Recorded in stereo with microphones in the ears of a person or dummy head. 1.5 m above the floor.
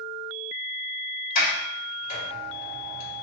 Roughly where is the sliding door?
Left.